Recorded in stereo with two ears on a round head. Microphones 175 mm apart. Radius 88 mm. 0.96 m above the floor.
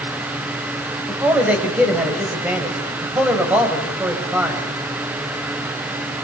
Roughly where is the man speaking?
Centre.